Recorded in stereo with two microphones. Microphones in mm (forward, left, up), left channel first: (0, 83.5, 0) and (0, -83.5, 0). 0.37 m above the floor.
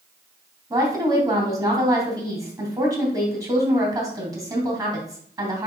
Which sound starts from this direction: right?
A woman speaking, at 0.7 s.